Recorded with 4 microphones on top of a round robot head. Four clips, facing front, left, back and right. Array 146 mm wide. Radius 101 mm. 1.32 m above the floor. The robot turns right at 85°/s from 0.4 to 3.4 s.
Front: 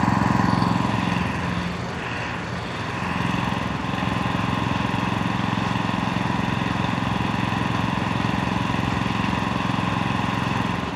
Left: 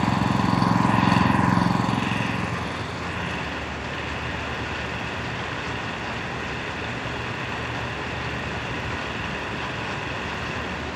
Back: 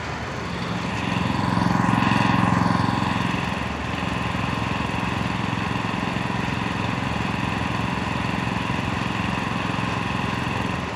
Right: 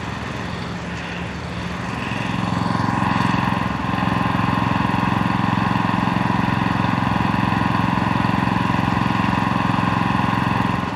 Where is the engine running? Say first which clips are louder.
Left 6 dB, front 10 dB; 30° left; by 11.0 s 75° right.